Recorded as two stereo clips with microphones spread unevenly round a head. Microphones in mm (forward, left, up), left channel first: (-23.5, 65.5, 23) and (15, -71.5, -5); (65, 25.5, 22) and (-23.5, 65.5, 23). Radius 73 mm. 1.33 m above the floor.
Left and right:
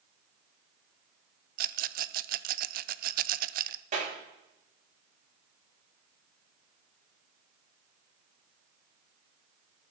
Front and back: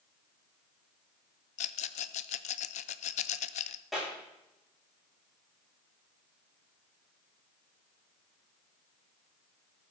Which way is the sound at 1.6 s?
45° right.